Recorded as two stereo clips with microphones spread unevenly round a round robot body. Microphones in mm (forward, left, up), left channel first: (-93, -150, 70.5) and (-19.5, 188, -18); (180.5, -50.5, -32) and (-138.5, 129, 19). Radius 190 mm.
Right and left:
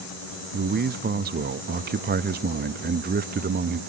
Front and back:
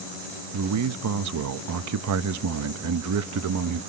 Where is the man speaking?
110° left, 0.7 m.